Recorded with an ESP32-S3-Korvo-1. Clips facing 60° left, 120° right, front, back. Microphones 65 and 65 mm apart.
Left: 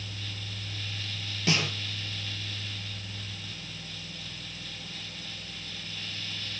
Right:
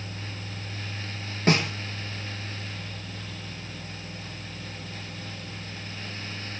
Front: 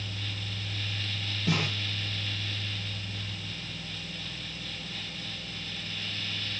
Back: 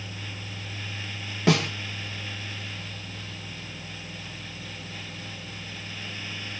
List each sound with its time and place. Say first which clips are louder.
1.5 s a snare drum: right 5 dB, back 7 dB; 170° right, 3.5 m